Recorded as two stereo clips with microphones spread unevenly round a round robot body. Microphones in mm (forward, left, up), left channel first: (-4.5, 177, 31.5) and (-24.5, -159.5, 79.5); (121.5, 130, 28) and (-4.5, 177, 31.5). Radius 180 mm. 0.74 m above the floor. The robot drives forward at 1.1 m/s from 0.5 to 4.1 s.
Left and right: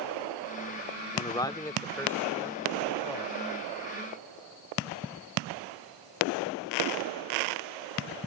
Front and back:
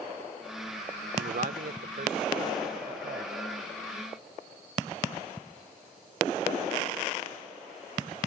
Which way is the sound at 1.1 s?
160° left.